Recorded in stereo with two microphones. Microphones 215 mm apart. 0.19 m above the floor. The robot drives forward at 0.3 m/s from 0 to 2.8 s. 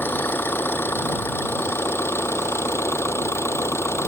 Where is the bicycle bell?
No bicycle bell in this recording.